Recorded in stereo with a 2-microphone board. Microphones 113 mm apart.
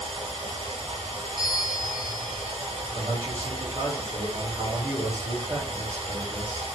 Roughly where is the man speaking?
Right.